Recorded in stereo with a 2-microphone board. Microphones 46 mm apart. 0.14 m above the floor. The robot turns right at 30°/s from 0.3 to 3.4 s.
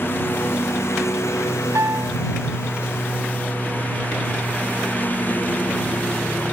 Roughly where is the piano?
Right.